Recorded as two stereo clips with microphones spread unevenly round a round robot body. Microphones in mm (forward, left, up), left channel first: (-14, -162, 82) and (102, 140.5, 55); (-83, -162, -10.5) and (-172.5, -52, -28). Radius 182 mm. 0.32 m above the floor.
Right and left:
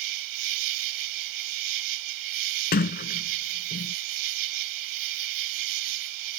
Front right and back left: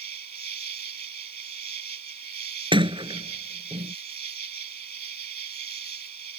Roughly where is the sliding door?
Behind.